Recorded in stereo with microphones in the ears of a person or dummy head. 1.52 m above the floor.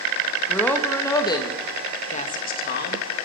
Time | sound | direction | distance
0.5 | a woman speaking | centre (ahead or behind) | 2.5 m